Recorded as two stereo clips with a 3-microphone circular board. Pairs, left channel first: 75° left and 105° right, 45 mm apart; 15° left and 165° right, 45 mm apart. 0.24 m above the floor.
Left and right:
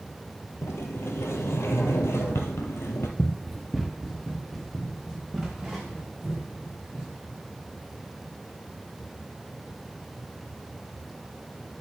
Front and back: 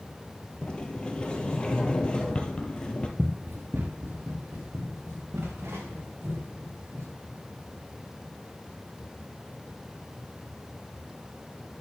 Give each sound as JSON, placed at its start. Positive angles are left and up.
{"t": 0.6, "sound": "a sliding door", "azimuth_deg": 85, "distance_m": 1.0}
{"t": 3.2, "sound": "running footsteps", "azimuth_deg": 155, "distance_m": 0.6}